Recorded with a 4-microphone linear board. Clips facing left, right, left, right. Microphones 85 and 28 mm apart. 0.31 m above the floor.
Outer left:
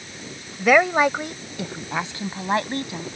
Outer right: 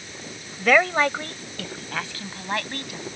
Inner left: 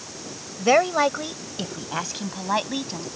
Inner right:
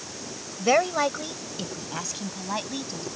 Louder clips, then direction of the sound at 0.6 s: Outer left 2 dB, inner left 3 dB; 10° left (ahead or behind).